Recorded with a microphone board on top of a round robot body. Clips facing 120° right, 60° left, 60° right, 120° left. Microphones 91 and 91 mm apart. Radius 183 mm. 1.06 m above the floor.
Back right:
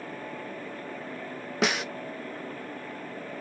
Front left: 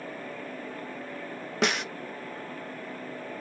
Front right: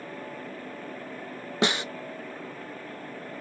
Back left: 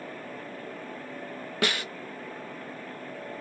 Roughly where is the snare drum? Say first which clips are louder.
Even, front right 3 dB; ahead right.